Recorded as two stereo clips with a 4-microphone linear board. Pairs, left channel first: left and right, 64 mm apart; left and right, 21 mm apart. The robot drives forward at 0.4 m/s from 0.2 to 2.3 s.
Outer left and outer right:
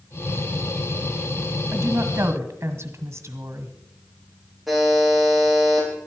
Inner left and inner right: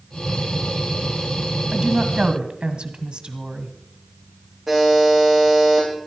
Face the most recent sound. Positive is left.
turn(degrees=0)  # may be behind; listen again after turning